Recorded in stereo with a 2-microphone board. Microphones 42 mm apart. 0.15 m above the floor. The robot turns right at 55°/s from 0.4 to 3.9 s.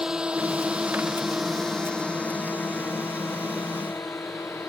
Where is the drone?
15° right (ahead or behind); by 4.7 s 75° left (ahead or behind).